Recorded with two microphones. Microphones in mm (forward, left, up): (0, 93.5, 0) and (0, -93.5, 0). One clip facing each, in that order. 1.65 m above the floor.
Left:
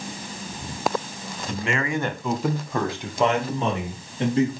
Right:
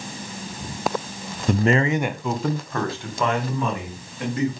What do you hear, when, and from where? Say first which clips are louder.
1.5 s a man speaking: right 7 dB; 60° right (ahead or behind), 1.0 m; by 4.5 s 30° left (ahead or behind), 4.5 m